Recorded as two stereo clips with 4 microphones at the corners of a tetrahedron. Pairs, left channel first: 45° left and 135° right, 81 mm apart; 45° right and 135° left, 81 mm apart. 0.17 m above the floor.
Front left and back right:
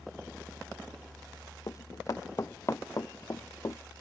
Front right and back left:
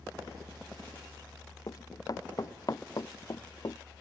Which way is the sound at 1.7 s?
Straight ahead.